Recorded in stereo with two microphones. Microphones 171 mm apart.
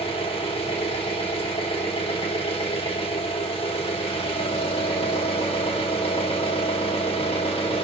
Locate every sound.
0.0 s an engine running: 35° left (ahead or behind), 0.8 m